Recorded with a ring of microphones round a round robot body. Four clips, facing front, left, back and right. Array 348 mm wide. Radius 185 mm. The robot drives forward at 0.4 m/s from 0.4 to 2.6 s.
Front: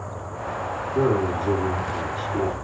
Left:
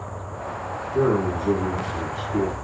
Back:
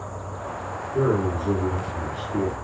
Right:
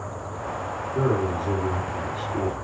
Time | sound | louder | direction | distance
0.9 | a man speaking | left 3 dB, front 1 dB | 135° left | 1.4 m